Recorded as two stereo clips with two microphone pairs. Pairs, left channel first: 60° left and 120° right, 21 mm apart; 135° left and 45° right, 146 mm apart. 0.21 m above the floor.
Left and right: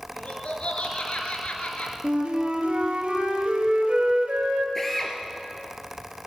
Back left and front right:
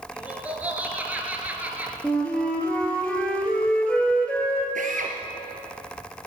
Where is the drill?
20° right, 2.5 m.